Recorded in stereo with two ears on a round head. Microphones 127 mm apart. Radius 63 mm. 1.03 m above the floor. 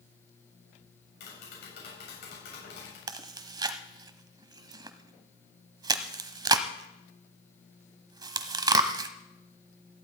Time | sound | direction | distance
1.2 | tapping | 85° left | 7 m
3.1 | chewing | 30° right (ahead or behind) | 1.0 m